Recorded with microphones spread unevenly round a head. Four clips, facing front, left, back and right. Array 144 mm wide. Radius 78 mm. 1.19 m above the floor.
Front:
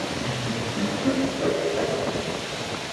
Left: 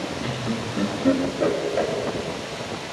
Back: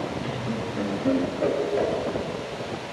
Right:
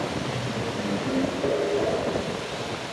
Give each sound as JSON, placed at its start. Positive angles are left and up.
{"t": 0.2, "sound": "laughter", "azimuth_deg": 100, "distance_m": 3.0}